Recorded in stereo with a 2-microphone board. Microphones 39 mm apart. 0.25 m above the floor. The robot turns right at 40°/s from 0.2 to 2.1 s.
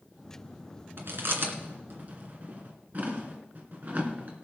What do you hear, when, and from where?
1.0 s chewing: 70° right (ahead or behind), 2 m; by 4.4 s 45° right (ahead or behind), 2 m